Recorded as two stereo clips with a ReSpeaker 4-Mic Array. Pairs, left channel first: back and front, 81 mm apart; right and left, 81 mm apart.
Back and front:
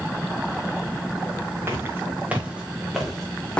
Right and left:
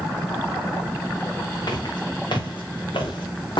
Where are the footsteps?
60° right, 3.5 m; by 3.6 s 105° right, 3 m.